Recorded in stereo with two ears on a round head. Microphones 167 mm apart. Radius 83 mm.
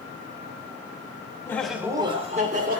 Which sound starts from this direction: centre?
Laughter, at 1.5 s.